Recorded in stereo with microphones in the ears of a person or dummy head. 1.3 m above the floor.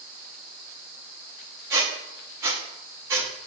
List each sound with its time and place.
1.7 s a squeak: 15° right (ahead or behind), 0.7 m